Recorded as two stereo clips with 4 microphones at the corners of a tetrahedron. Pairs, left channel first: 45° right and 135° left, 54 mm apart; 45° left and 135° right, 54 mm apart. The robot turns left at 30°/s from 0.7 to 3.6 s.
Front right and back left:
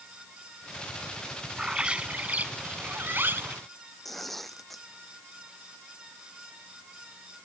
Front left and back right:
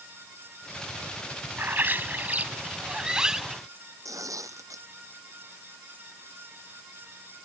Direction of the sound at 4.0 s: 130° right.